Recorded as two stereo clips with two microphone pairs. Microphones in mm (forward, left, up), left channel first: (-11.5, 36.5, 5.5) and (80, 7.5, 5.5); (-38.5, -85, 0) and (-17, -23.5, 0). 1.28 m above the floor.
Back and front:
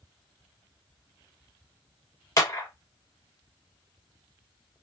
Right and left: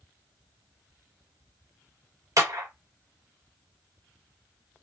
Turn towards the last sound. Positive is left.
turn(degrees=110)